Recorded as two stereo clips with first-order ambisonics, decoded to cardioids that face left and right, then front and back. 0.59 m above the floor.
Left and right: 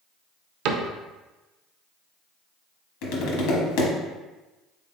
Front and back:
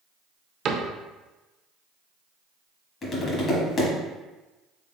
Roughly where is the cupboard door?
Behind right.